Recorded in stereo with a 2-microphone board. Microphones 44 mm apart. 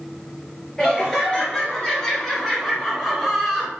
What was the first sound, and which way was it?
Laughter, 15° left (ahead or behind).